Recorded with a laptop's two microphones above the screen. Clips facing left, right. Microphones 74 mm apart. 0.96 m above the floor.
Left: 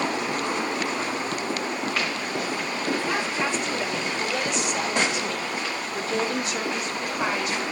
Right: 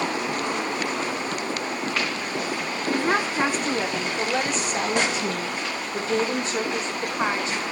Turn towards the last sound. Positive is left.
turn(degrees=-30)  # may be behind; listen again after turning